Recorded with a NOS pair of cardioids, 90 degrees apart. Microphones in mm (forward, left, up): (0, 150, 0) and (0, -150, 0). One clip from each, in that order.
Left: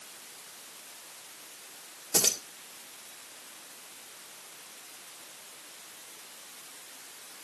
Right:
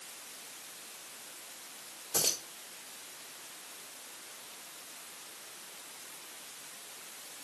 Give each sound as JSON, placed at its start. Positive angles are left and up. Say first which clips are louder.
{"t": 2.1, "sound": "keys jangling", "louder": "left 5 dB", "azimuth_deg": 50, "distance_m": 1.7}